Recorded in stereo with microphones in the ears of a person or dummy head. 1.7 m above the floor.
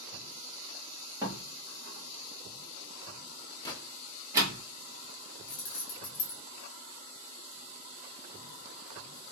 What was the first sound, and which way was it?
A door slam, 15° right (ahead or behind).